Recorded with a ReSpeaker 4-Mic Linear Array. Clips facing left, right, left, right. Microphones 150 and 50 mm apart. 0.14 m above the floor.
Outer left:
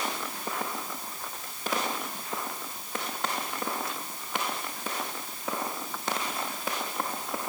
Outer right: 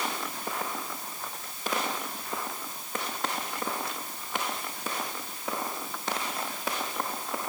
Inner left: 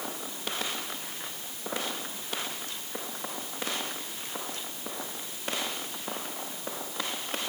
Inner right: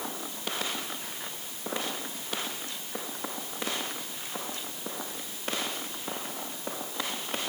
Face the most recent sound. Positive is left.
No sound to turn to.